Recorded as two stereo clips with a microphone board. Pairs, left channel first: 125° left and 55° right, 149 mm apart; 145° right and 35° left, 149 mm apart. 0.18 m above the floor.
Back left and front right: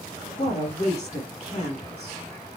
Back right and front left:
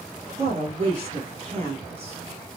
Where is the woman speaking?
85° left, 4.5 m.